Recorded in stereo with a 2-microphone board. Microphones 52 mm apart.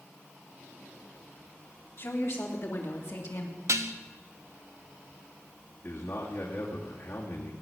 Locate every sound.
2.0 s a woman speaking: 65° left (ahead or behind), 2.5 m; by 3.6 s 70° left (ahead or behind), 1.9 m
3.7 s dishes clattering: 75° right (ahead or behind), 0.8 m
5.8 s a man speaking: 65° left (ahead or behind), 2.5 m